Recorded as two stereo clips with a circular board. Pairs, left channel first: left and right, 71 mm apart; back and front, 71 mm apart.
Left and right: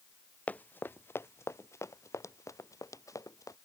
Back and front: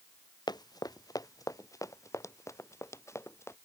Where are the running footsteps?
160° left; by 3.6 s 130° left.